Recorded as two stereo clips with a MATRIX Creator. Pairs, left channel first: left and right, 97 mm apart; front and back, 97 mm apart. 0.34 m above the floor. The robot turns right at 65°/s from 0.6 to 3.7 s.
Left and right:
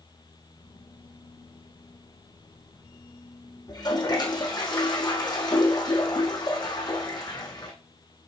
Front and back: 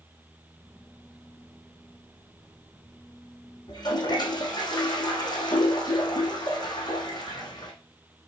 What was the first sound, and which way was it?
A toilet flushing, 45° left.